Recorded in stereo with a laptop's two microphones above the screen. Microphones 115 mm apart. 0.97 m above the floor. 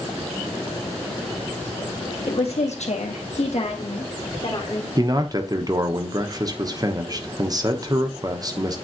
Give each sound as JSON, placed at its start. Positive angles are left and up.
{"t": 2.3, "sound": "a woman speaking", "side_deg": 55, "distance_m": 1.2}
{"t": 5.0, "sound": "a man speaking", "side_deg": -35, "distance_m": 0.9}